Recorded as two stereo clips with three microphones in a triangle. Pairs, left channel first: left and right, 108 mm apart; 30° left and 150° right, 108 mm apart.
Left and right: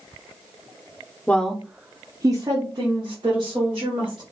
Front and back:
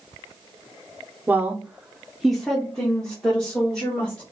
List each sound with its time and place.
1.3 s a woman speaking: 155° left, 0.6 m; by 4.2 s 50° right, 1.7 m